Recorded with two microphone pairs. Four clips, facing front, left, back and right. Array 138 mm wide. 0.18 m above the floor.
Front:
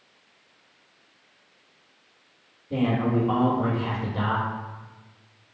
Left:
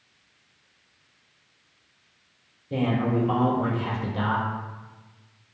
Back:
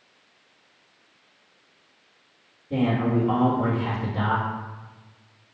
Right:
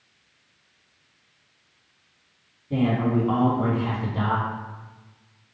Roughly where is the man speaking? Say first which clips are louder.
Right 2 dB, back 1 dB; right.